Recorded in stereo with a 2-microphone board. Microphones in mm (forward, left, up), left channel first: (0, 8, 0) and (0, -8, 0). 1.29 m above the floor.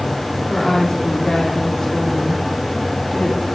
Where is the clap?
No clap in this recording.